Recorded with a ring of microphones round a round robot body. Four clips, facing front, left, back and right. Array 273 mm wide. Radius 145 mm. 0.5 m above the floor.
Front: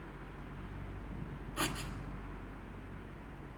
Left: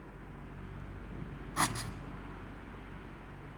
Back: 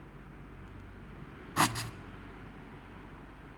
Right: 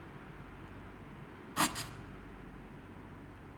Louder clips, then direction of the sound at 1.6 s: Even, back 9 dB; 175° left.